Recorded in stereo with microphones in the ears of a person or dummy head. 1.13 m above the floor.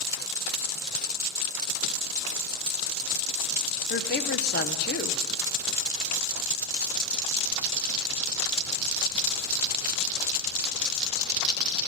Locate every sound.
3.9 s a woman speaking: 40° left (ahead or behind), 0.7 m